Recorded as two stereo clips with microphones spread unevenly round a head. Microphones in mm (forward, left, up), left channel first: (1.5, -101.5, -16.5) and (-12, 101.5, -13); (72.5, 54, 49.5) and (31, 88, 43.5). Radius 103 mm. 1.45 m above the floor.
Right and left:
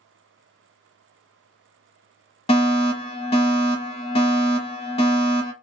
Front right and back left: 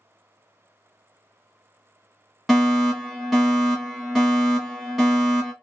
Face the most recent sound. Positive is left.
turn(degrees=-140)